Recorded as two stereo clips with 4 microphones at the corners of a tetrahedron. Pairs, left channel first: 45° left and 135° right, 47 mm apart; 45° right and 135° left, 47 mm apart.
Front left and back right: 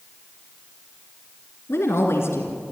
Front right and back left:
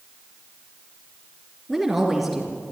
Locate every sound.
1.7 s a woman speaking: 45° left, 3 m